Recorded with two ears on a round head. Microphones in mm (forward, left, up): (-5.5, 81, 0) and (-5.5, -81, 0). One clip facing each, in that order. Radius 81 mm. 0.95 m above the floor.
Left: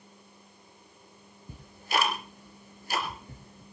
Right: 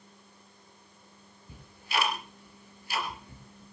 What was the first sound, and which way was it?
Ticking, 40° left (ahead or behind).